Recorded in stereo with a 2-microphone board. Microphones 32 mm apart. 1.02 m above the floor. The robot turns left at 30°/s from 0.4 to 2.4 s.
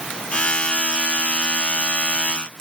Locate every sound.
Only background noise.